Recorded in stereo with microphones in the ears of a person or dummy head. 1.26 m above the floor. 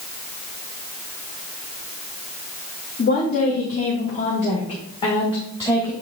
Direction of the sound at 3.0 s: 50° left (ahead or behind).